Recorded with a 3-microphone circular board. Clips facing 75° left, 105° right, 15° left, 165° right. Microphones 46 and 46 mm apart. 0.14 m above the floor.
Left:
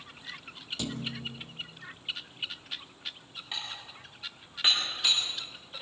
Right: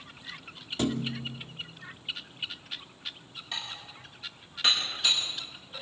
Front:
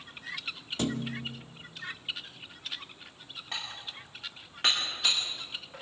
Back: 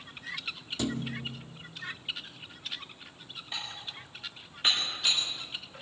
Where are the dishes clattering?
Straight ahead, 8 m.